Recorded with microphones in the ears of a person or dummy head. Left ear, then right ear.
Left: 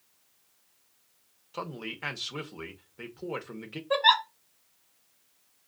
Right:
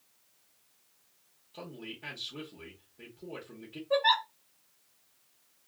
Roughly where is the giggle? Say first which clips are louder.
Left 4 dB; left.